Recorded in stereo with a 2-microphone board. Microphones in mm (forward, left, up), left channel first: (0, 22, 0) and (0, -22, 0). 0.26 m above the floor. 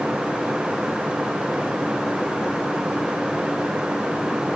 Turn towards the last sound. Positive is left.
No sound to turn to.